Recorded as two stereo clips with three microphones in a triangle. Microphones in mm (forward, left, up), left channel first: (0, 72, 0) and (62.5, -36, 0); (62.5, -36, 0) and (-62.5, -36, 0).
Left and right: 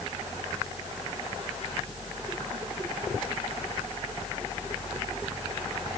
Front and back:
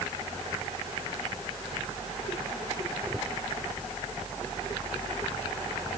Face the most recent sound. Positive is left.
No sound to turn to.